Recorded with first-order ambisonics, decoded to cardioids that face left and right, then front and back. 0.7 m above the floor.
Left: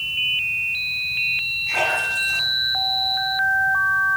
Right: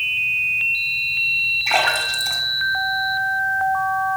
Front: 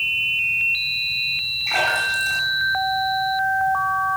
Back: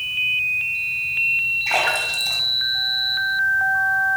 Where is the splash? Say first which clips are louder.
Right 3 dB, even; 120° right, 1.7 m.